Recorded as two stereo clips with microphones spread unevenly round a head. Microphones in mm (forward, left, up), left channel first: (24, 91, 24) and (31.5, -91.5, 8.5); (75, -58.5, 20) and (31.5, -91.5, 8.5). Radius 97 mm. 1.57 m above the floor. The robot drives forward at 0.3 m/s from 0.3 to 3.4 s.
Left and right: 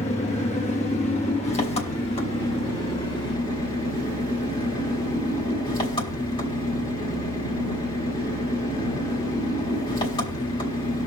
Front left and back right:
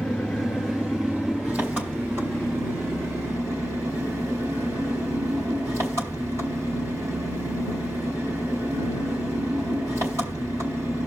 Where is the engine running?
105° left, 1.1 m; by 11.1 s 150° left, 1.5 m.